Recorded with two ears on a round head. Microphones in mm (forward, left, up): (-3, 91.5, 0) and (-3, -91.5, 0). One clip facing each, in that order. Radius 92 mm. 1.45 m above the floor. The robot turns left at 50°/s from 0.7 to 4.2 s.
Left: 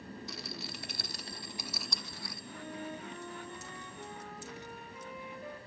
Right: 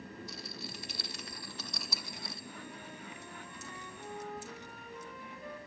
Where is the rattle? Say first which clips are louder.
Left 2 dB; 55° left (ahead or behind), 1.0 m; by 2.4 s 25° right (ahead or behind), 1.0 m.